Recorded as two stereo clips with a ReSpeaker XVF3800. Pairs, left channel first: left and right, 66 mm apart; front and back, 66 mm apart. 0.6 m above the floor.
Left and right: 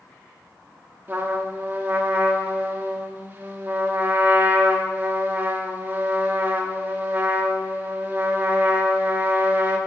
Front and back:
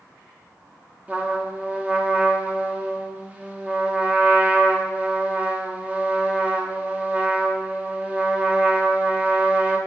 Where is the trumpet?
130° right, 0.6 m.